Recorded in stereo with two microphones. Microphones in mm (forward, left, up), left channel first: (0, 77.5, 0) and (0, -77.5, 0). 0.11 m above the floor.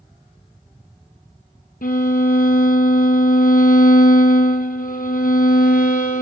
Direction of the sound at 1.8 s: 60° left (ahead or behind).